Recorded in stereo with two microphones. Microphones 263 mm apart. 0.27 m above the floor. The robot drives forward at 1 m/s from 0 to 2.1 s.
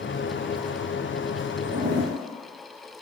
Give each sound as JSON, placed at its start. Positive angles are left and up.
{"t": 1.6, "sound": "a zipper", "side_deg": -80, "distance_m": 4.0}